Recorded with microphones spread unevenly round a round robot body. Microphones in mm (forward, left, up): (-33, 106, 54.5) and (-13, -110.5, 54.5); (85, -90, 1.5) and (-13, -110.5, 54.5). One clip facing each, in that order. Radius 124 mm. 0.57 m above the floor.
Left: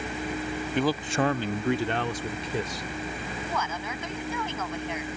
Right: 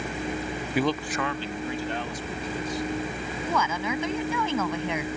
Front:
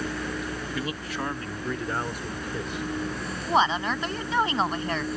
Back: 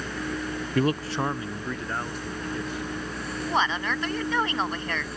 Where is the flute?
I don't hear a flute.